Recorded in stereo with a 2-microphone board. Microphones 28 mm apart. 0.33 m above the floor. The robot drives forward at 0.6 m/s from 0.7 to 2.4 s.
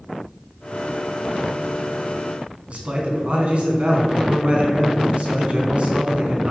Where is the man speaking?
50° right (ahead or behind), 3.5 m.